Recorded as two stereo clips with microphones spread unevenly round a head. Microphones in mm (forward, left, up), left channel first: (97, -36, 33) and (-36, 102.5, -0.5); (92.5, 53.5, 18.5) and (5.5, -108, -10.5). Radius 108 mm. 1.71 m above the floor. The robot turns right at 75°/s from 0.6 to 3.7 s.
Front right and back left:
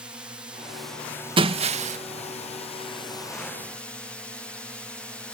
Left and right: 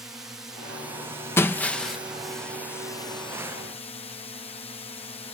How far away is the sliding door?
No sliding door in this recording.